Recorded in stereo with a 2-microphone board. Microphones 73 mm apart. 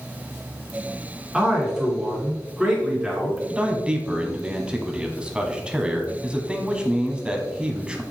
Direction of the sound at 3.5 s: 15° right (ahead or behind).